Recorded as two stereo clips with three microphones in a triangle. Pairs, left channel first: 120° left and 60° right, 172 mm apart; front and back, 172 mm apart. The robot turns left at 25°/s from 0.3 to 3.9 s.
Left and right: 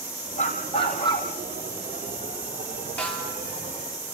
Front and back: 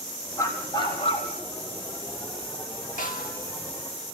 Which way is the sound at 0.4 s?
75° left.